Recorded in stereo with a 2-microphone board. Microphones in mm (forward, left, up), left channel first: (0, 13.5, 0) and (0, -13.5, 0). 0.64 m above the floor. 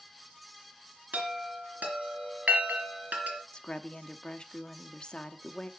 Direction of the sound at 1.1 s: 85° right.